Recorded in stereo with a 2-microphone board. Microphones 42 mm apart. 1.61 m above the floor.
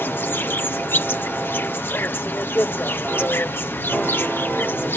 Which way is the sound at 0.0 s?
65° left (ahead or behind).